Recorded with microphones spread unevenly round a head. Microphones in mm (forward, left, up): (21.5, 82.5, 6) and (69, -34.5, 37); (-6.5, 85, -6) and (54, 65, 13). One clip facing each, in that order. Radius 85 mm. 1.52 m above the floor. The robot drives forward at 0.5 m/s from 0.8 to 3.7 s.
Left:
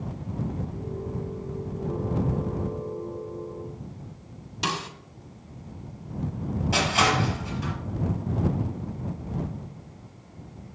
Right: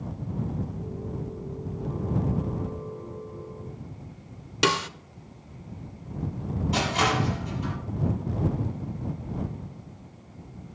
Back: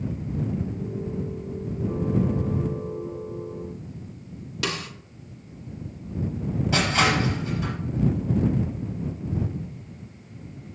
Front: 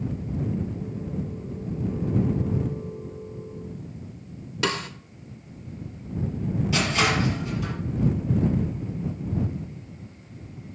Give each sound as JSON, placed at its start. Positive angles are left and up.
{"t": 4.6, "sound": "a snare drum", "azimuth_deg": -100, "distance_m": 0.6}
{"t": 6.7, "sound": "crushing", "azimuth_deg": 145, "distance_m": 5.5}